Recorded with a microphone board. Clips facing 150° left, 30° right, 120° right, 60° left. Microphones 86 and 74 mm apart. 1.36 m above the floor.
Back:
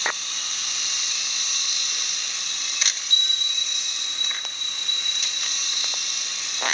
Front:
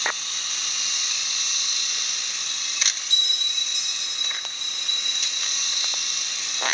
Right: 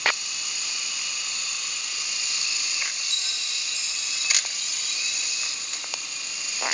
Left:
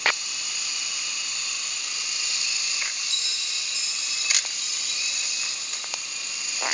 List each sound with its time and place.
3.1 s a bell: 165° right, 2.5 m